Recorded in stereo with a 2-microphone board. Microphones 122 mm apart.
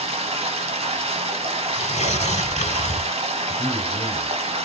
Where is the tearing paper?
70° left (ahead or behind), 0.7 m.